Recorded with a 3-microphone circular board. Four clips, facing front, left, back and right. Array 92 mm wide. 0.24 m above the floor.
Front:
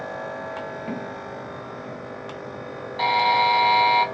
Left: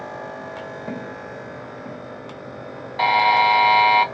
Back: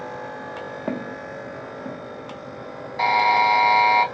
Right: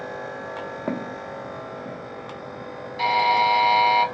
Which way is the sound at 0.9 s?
130° right.